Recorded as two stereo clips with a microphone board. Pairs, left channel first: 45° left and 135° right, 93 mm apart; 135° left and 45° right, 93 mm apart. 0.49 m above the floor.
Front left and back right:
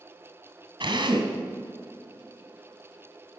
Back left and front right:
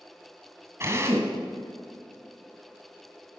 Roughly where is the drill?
Right.